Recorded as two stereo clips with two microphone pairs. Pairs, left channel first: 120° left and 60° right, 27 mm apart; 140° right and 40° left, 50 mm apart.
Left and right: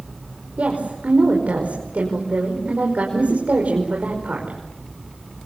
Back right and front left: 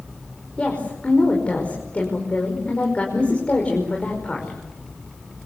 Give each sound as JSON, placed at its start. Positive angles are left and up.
{"t": 0.6, "sound": "a woman speaking", "azimuth_deg": -75, "distance_m": 5.5}